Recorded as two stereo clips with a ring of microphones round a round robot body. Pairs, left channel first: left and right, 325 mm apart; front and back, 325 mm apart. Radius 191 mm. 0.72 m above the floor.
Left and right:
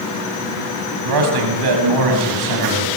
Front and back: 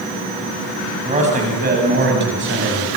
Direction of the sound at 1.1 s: 105° right.